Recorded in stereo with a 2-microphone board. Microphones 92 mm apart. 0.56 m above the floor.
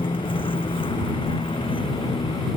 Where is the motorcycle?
80° left; by 2.6 s 90° left.